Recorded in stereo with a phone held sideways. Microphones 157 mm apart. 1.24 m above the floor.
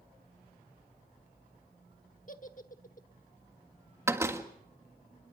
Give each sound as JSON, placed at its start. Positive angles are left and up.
{"t": 2.3, "sound": "a giggle", "side_deg": 55, "distance_m": 1.2}
{"t": 4.1, "sound": "a door slam", "side_deg": -15, "distance_m": 1.7}